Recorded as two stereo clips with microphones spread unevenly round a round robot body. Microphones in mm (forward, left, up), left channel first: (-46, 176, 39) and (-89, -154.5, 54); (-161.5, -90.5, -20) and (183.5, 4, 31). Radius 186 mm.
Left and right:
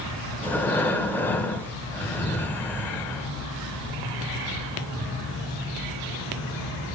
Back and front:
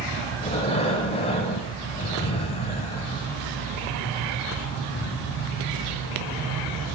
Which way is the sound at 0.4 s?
160° left.